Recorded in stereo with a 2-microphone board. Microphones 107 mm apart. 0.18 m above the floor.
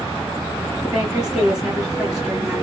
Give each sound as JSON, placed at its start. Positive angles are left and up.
{"t": 0.8, "sound": "a woman speaking", "side_deg": -5, "distance_m": 2.5}